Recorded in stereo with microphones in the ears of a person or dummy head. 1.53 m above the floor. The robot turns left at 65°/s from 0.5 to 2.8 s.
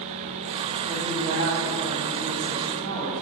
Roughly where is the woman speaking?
Ahead.